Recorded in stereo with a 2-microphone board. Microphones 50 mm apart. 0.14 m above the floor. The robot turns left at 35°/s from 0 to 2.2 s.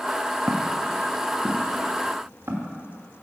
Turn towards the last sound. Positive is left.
turn(degrees=-50)  # may be behind; listen again after turning